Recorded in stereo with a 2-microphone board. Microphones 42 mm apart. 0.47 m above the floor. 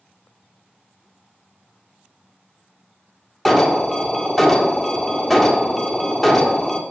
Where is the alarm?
5° left (ahead or behind), 1.4 m.